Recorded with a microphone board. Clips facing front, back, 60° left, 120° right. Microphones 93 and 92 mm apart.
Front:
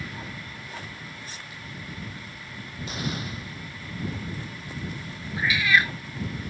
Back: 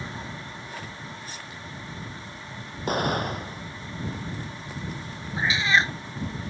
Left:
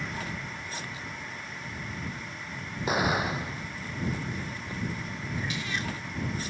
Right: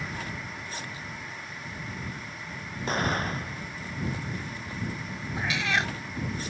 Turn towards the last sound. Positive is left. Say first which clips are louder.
# even, right 7 dB
turn(degrees=-115)